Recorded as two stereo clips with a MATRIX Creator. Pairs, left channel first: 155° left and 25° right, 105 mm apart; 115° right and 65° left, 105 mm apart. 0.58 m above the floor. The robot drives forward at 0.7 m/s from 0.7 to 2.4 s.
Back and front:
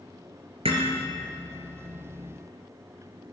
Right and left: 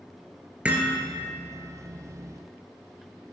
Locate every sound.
0.7 s hammering: 10° right, 2.5 m